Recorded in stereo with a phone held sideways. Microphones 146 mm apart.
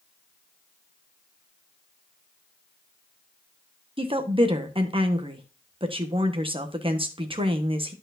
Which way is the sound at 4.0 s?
35° right (ahead or behind).